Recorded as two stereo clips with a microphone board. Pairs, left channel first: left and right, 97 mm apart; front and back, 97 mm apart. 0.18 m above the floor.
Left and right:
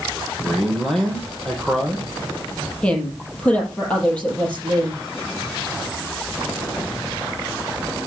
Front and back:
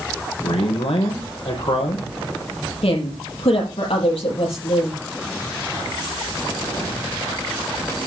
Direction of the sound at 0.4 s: Straight ahead.